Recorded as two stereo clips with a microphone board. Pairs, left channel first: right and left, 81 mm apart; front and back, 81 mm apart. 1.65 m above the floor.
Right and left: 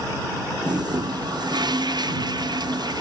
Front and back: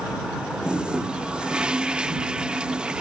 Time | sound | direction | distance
0.6 | a toilet flushing | 100° left | ?